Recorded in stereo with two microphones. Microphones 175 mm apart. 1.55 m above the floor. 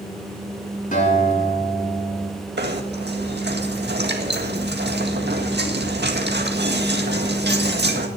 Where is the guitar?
50° left (ahead or behind), 7.5 m.